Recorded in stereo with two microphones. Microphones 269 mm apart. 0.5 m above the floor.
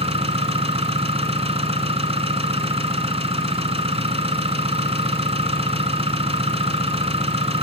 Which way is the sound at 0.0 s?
25° right (ahead or behind).